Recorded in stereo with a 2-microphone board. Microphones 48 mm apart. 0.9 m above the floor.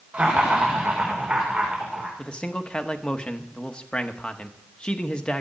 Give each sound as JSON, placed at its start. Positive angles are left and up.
{"t": 0.1, "sound": "laughter", "side_deg": -30, "distance_m": 3.0}
{"t": 2.2, "sound": "a man speaking", "side_deg": 25, "distance_m": 1.1}